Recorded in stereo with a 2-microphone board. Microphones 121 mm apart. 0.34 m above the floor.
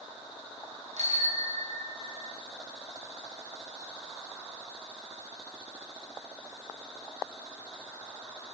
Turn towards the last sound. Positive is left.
turn(degrees=-55)  # may be behind; listen again after turning